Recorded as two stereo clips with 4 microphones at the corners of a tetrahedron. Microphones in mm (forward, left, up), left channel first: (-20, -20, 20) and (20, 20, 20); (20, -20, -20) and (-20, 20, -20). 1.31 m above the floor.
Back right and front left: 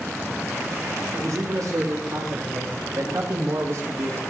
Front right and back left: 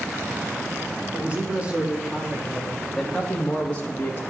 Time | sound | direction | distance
1.1 | a man speaking | 75° left | 3.5 m